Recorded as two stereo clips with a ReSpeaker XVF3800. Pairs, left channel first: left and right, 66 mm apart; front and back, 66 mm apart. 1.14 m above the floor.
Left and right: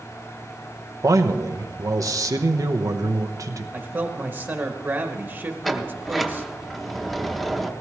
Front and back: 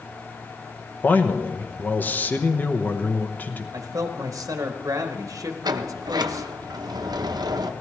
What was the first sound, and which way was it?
A man speaking, 65° right.